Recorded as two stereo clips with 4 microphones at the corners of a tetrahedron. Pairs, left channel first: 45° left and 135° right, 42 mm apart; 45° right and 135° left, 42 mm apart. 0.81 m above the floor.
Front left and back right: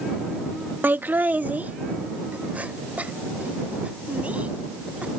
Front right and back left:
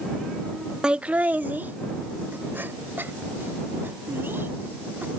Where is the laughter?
160° right; by 5.1 s 165° left.